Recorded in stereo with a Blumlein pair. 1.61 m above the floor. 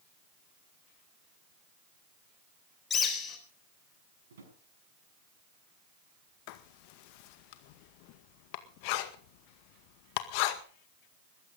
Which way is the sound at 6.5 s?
45° left.